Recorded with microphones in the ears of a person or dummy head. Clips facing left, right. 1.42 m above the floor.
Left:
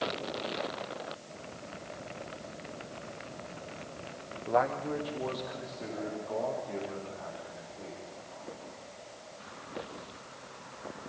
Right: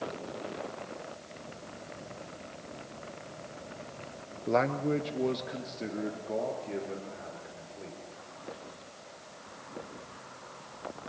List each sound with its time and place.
4.5 s a man speaking: 30° right (ahead or behind), 0.6 m